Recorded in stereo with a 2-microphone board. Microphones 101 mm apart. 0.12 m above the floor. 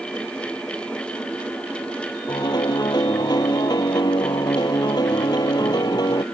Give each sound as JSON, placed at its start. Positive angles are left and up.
{"t": 2.3, "sound": "a piano", "side_deg": 45}